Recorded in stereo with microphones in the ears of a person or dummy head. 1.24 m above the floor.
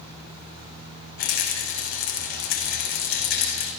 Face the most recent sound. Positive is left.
turn(degrees=75)  # may be behind; listen again after turning